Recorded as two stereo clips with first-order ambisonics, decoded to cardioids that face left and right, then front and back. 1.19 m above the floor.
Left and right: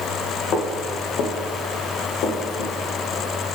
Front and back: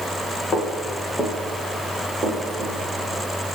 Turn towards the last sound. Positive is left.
turn(degrees=115)